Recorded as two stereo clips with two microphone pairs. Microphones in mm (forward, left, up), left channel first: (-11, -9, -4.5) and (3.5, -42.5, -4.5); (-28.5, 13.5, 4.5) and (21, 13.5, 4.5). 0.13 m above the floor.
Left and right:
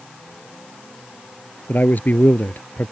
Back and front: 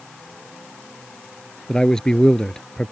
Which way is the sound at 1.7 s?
105° left.